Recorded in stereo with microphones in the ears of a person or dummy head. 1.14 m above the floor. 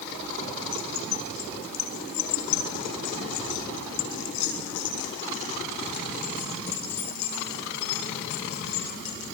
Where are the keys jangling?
85° left, 5 m; by 9.2 s 60° left (ahead or behind), 11.5 m.